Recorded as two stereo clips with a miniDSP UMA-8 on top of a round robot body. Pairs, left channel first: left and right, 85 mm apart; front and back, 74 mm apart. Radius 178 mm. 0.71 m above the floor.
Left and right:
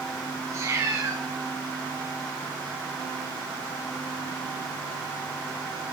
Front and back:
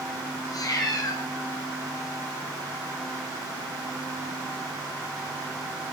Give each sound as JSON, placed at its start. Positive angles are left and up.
{"t": 0.5, "sound": "a cat meowing", "azimuth_deg": -35, "distance_m": 1.6}